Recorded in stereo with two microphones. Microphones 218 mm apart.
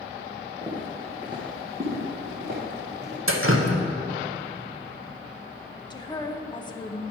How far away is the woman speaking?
About 0.6 m.